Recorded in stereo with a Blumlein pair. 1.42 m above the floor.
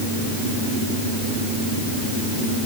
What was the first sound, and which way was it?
Only background noise.